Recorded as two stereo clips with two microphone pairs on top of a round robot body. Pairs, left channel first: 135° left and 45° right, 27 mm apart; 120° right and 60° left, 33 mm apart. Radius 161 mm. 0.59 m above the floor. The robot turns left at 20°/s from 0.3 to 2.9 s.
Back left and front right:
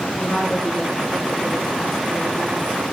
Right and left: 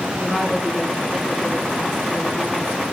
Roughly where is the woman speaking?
Left.